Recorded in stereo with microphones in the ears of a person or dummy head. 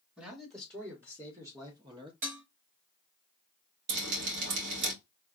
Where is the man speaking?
10° right (ahead or behind), 1.6 m; by 2.1 s 25° right (ahead or behind), 0.5 m.